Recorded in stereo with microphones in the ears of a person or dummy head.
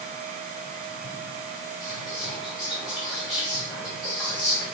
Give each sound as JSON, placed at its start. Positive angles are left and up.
{"t": 1.8, "sound": "whispering", "side_deg": 0, "distance_m": 0.7}